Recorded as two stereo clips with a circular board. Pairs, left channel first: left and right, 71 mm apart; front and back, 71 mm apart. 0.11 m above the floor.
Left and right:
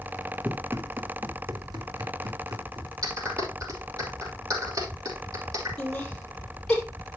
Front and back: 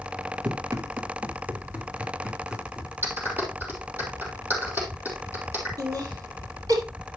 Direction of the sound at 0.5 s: 160° right.